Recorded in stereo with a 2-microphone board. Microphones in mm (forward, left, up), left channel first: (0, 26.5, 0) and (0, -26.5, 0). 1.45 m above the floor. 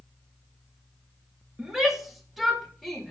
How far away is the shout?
About 2.5 m.